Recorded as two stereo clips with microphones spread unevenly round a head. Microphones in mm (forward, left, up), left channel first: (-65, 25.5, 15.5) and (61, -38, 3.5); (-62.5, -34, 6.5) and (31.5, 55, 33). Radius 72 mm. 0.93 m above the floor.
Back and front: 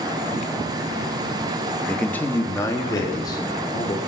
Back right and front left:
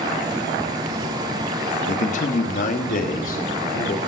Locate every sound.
1.9 s a man speaking: 120° right, 1.1 m; by 4.0 s 145° right, 3 m